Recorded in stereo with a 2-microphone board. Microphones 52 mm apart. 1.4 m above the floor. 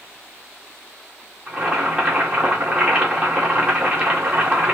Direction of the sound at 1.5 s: 20° right (ahead or behind).